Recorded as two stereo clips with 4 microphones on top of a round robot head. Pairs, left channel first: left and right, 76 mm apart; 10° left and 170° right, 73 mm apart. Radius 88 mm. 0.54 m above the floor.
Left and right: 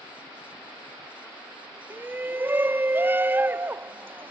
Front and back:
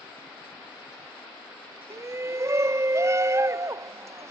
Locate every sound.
1.9 s a shout: 145° right